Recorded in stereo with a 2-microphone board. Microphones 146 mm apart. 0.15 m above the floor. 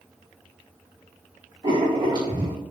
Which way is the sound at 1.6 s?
30° right (ahead or behind).